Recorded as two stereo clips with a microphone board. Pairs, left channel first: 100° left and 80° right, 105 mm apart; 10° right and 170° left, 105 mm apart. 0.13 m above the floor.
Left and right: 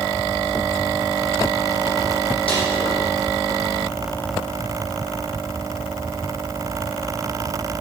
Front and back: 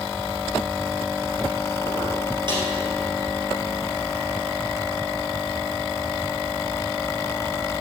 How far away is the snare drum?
About 3 m.